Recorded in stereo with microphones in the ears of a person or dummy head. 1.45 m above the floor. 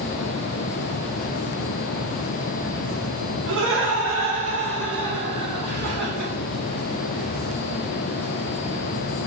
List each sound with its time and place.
3.5 s laughter: 60° right (ahead or behind), 0.9 m; by 6.3 s 45° right (ahead or behind), 1.7 m